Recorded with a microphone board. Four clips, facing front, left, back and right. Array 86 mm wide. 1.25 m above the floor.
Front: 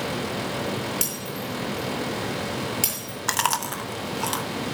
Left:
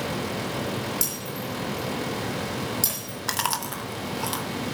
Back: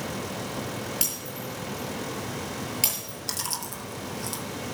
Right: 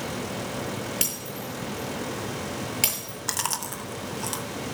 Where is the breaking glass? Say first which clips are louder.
Left 2 dB, front 4 dB; 90° right, 7.5 m.